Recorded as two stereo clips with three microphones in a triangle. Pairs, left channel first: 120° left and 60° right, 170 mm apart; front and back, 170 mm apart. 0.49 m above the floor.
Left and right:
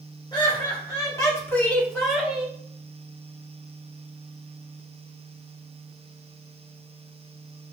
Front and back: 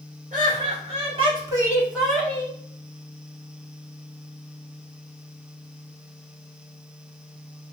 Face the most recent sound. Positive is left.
turn(degrees=0)